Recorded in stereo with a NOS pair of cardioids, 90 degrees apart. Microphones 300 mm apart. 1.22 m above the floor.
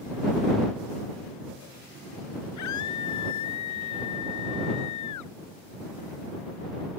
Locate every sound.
2.6 s a scream: 70° left; by 5.3 s 75° left